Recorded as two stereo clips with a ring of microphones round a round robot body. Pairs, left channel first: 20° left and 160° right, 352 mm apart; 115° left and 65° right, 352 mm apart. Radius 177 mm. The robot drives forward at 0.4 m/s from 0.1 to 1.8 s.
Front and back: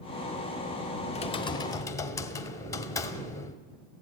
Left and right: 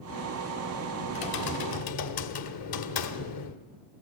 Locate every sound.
1.1 s typing on a keyboard: 95° left, 1.7 m; by 3.6 s 105° left, 1.7 m